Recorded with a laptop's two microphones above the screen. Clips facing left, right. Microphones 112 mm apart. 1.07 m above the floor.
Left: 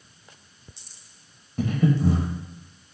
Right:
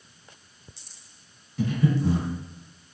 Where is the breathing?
50° left (ahead or behind), 0.6 m.